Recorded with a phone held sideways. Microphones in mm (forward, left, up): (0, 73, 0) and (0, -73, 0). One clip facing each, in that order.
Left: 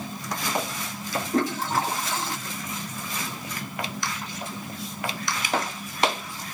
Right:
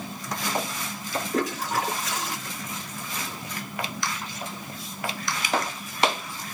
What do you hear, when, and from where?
1.3 s a toilet flushing: 30° left (ahead or behind), 1.5 m